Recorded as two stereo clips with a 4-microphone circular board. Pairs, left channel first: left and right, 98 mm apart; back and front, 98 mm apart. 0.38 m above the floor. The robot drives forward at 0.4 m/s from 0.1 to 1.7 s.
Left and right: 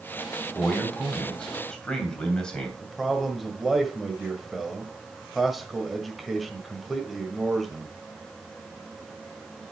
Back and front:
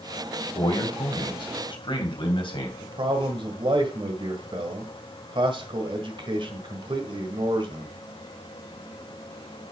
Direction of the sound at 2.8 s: Straight ahead.